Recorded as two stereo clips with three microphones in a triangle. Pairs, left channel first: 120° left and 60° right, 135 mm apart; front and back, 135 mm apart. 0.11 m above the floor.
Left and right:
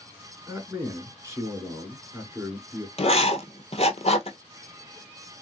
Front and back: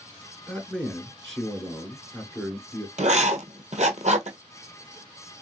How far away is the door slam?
No door slam in this recording.